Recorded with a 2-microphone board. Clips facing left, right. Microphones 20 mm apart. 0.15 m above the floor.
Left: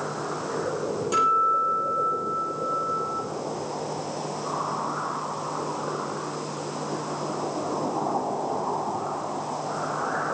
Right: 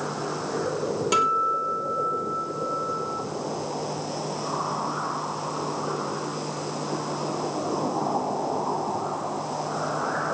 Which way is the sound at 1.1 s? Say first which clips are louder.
Left 2 dB; 40° right (ahead or behind).